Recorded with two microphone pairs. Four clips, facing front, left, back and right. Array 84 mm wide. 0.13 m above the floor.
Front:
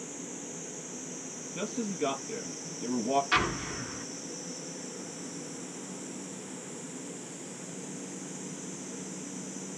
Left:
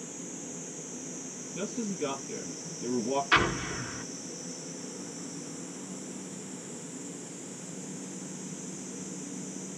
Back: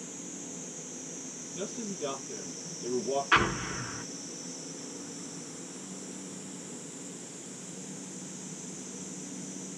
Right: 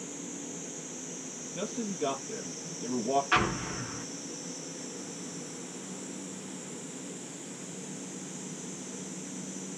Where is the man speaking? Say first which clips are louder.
Even, front 4 dB; 5° left, 2 m.